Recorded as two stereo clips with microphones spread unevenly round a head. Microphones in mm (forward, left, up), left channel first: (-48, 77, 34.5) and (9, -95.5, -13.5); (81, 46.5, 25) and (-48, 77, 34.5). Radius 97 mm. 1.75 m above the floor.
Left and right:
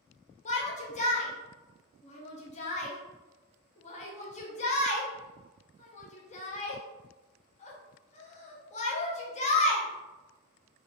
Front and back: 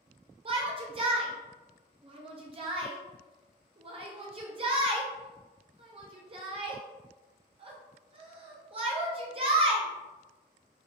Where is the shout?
135° left, 0.6 m.